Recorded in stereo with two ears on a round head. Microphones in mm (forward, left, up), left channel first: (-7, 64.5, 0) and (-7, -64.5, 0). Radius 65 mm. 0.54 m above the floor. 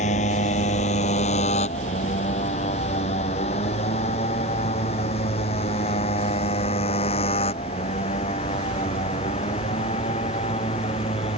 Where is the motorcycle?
55° left (ahead or behind); by 11.4 s 40° left (ahead or behind).